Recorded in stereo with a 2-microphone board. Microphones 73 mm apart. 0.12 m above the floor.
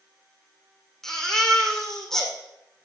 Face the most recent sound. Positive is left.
turn(degrees=5)  # may be behind; listen again after turning